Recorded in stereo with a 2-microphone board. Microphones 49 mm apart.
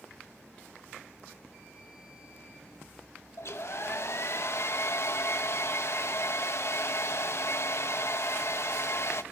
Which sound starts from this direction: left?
A hair dryer, at 3.4 s.